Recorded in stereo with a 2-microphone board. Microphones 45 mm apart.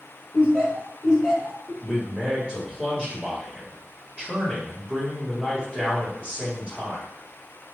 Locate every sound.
0.3 s laughter: 35° right (ahead or behind), 1.2 m; by 1.7 s 5° left (ahead or behind), 1.1 m
1.8 s a man speaking: 20° right (ahead or behind), 1.5 m